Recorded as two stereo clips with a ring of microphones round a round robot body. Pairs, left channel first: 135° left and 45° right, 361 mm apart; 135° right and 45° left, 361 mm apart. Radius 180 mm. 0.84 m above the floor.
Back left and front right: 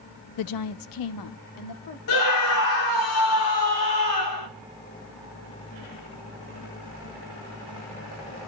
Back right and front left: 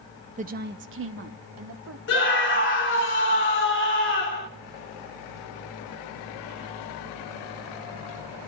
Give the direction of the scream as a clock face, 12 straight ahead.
6 o'clock.